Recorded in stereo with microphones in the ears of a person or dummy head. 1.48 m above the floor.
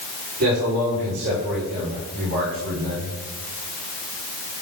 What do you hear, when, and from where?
0.4 s a man speaking: 55° right (ahead or behind), 5.5 m; by 3.1 s 60° right (ahead or behind), 7 m